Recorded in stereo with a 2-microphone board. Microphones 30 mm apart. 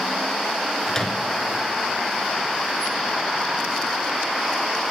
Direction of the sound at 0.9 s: 15° left (ahead or behind).